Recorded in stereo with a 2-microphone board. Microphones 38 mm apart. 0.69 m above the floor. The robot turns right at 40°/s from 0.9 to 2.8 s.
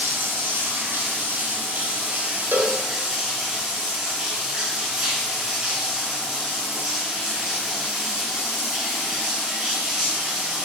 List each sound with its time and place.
0.0 s running water: 95° right, 1.2 m; by 10.7 s 20° right, 1.2 m
2.5 s a cowbell: 65° right (ahead or behind), 0.6 m; by 2.8 s 55° right (ahead or behind), 0.6 m